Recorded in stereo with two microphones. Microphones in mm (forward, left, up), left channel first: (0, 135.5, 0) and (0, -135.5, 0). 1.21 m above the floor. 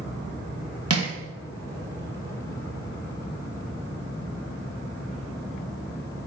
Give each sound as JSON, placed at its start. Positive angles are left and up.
{"t": 0.9, "sound": "crushing", "side_deg": -60, "distance_m": 1.3}